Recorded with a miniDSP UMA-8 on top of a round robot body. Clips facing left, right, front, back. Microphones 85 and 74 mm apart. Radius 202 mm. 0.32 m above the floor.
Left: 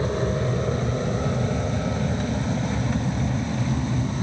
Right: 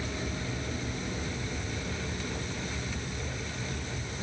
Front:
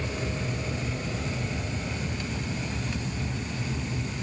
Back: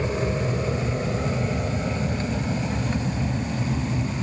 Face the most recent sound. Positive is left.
turn(degrees=125)